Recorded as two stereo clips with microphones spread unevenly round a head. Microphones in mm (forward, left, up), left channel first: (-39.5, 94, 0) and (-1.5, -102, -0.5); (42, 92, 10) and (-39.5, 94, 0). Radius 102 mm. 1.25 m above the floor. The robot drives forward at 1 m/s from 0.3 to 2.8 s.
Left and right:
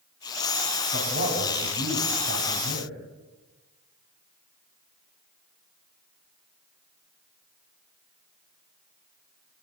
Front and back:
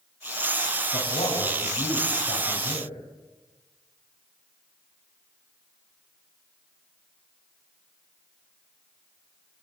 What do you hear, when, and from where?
0.9 s a man speaking: 30° right, 9 m; by 2.9 s 40° right, 7.5 m